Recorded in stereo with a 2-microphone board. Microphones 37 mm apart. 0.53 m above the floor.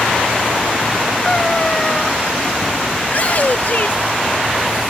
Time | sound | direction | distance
1.2 | a cat meowing | 20° left (ahead or behind) | ?
3.0 | a shout | 40° left (ahead or behind) | ?